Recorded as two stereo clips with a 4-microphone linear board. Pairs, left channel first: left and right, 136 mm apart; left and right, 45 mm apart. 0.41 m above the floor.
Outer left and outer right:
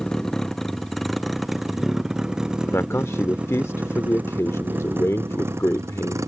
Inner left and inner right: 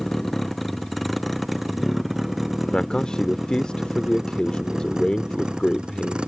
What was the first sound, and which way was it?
A vehicle, 5° left (ahead or behind).